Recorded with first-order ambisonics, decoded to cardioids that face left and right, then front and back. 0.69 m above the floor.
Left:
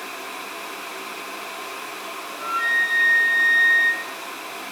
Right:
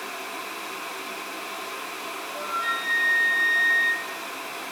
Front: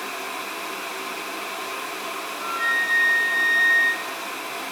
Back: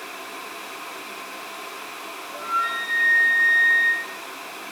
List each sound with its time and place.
2.3 s a flute: 55° left, 1.5 m